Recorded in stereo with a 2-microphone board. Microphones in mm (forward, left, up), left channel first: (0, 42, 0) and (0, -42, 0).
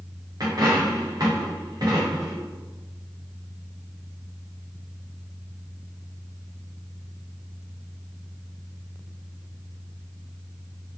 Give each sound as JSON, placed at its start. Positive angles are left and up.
{"t": 0.4, "sound": "a dropped coin", "side_deg": -50, "distance_m": 3.5}